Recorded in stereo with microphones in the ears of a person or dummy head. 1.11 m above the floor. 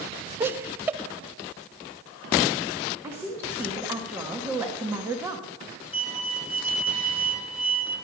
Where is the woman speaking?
15° right (ahead or behind), 1.3 m.